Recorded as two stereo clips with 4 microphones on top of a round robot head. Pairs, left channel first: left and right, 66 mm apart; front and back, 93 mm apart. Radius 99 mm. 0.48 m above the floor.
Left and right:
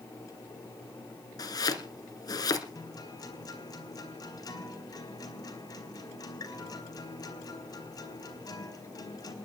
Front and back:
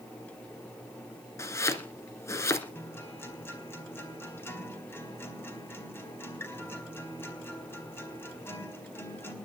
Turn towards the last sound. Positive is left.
turn(degrees=65)